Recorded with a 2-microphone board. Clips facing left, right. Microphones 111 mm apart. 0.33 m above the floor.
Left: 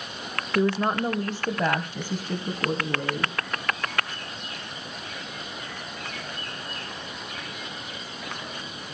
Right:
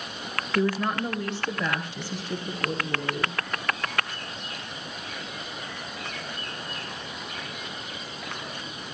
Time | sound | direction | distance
0.6 | a woman speaking | 20° left (ahead or behind) | 0.9 m